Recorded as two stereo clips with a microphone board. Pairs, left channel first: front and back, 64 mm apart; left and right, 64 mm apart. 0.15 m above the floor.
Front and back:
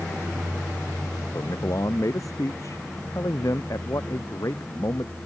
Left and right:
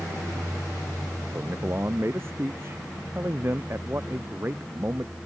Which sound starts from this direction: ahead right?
A man speaking, at 1.3 s.